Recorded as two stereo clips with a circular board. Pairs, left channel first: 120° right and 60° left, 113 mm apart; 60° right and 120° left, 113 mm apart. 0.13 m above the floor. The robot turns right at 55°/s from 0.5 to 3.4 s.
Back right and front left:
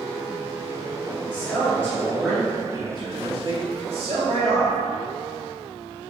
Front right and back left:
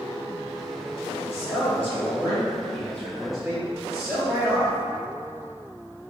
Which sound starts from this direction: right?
A man speaking, at 1.3 s.